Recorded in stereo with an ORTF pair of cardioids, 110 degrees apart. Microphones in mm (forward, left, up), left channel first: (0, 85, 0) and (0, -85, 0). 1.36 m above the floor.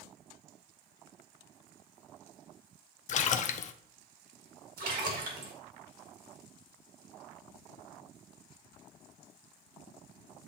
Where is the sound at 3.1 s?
45° left, 0.6 m.